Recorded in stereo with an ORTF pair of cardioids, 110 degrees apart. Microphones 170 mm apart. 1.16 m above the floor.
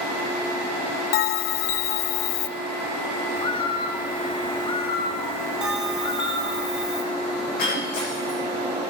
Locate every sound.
1.1 s a bell: 70° left, 0.6 m
3.4 s a bird: 30° left, 1.4 m
5.6 s a bell: 5° right, 1.6 m
7.6 s breaking glass: 65° left, 9 m